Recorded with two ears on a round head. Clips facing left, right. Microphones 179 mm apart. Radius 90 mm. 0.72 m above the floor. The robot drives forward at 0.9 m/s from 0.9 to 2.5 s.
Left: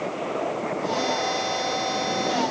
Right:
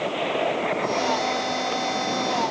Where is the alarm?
I don't hear an alarm.